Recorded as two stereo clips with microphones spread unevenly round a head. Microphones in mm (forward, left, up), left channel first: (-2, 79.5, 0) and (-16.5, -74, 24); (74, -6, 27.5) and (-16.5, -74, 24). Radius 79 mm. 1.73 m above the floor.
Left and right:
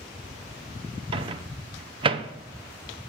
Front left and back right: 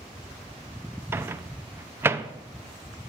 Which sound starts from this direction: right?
A microwave, at 1.1 s.